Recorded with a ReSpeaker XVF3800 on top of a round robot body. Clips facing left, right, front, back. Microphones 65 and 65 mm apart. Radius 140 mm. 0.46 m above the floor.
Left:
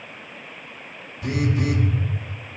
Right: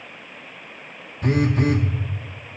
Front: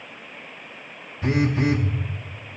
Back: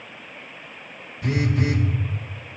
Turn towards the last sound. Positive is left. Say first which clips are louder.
# right 4 dB, front 2 dB
turn(degrees=-55)